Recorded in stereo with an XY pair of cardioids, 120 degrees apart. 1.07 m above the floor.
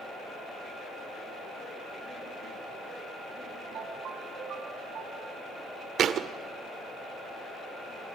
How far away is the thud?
About 1.5 m.